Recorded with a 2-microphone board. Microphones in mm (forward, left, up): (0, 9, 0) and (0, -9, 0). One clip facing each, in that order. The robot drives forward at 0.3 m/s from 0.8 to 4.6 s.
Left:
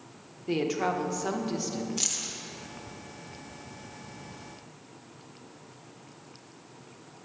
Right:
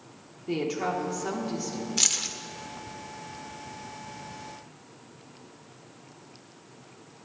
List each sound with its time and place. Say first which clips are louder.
0.5 s a woman speaking: left 1 dB; 10° left (ahead or behind), 1.3 m; by 1.9 s 15° left (ahead or behind), 1.0 m
2.0 s keys jangling: right 10 dB; 30° right (ahead or behind), 0.8 m; by 2.4 s 35° right (ahead or behind), 0.7 m